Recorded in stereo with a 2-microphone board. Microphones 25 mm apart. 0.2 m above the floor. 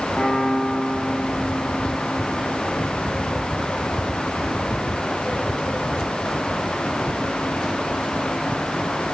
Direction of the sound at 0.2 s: 60° left (ahead or behind).